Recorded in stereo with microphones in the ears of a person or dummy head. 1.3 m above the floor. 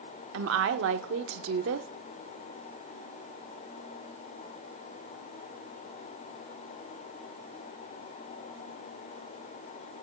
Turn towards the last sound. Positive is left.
turn(degrees=-70)  # may be behind; listen again after turning